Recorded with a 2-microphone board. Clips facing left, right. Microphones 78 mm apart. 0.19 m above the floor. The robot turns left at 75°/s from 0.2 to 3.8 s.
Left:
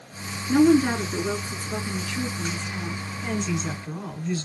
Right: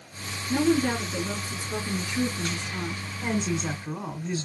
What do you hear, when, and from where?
0.5 s a woman speaking: 100° left, 2.5 m; by 3.0 s 90° right, 2.5 m
3.2 s a woman speaking: 100° right, 2 m; by 4.5 s 145° right, 2 m